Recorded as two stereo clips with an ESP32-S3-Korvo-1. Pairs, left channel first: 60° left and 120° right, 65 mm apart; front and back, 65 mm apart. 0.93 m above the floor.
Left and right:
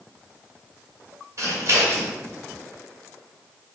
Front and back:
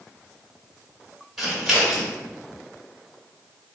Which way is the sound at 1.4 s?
95° right.